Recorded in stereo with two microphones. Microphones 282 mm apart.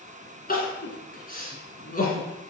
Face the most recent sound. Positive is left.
turn(degrees=30)  # may be behind; listen again after turning